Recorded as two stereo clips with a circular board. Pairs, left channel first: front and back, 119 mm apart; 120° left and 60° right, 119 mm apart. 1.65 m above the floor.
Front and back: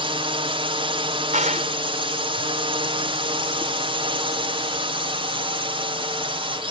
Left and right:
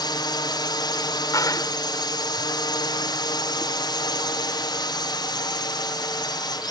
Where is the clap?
Straight behind.